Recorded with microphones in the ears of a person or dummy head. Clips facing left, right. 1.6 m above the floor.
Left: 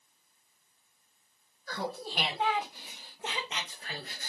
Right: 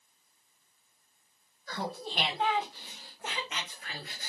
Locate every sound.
1.7 s laughter: centre (ahead or behind), 2.5 m; by 4.3 s 40° left (ahead or behind), 1.4 m